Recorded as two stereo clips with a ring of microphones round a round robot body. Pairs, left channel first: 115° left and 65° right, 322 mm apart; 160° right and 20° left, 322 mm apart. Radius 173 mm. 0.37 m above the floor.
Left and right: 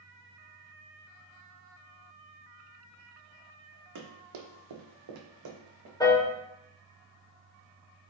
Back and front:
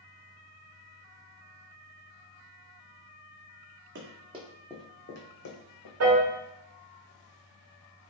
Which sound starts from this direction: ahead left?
A piano, at 6.0 s.